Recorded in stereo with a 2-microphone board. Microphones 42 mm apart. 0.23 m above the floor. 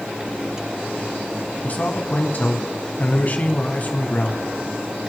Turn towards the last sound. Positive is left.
turn(degrees=45)  # may be behind; listen again after turning